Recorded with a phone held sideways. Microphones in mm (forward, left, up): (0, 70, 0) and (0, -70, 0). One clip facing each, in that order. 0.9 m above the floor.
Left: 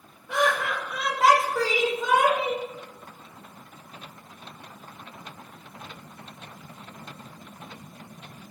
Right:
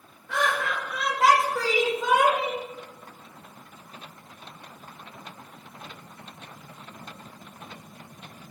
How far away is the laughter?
About 1.3 m.